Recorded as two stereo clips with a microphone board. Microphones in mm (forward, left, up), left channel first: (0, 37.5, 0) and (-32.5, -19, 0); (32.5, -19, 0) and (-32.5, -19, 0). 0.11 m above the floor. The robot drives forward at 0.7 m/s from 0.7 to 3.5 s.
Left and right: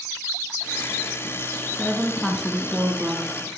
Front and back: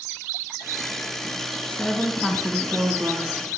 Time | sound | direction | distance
1.7 | a woman speaking | 15° left | 1.1 m